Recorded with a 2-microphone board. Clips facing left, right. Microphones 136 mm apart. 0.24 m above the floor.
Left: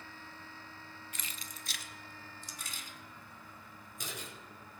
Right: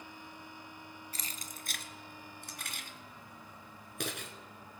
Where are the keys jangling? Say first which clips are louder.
Right 2 dB; 35° right (ahead or behind), 0.9 m; by 4.3 s 65° right (ahead or behind), 2.5 m.